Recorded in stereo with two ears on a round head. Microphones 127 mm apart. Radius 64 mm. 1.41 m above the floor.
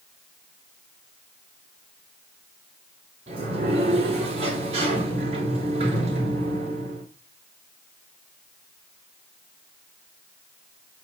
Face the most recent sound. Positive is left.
turn(degrees=-45)  # may be behind; listen again after turning